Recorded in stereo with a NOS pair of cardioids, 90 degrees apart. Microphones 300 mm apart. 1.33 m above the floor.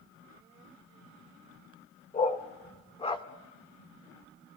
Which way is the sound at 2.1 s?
30° left.